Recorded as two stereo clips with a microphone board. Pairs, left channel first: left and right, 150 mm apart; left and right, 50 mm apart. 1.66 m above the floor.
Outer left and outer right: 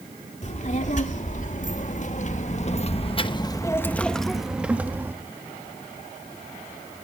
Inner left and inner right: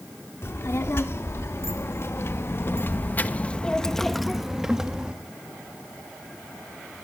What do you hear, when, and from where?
0.4 s a child speaking: 55° left (ahead or behind), 2.5 m; by 5.1 s 15° right (ahead or behind), 1.8 m